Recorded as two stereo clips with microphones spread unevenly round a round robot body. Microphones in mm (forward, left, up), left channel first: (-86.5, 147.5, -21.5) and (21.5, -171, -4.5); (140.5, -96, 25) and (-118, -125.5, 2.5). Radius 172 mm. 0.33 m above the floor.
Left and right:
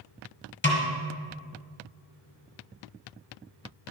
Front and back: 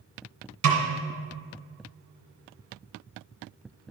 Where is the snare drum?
165° left, 1.8 m.